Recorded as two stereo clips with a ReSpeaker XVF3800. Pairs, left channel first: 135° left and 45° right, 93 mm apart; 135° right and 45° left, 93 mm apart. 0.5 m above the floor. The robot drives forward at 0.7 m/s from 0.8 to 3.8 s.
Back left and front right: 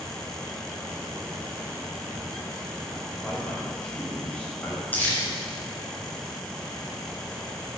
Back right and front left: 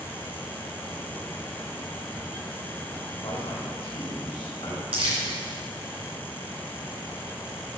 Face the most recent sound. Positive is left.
turn(degrees=65)